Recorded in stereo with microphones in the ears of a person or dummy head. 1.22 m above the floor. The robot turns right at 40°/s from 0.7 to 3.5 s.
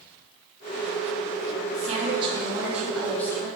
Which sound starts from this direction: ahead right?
A woman speaking, at 1.7 s.